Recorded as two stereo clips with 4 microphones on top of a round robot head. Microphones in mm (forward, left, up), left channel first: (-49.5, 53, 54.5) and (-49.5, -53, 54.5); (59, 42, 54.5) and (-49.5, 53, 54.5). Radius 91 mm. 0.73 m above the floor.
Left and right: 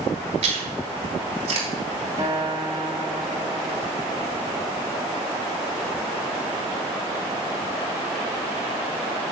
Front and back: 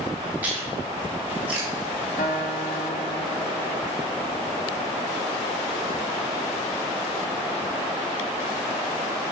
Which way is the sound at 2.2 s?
25° right.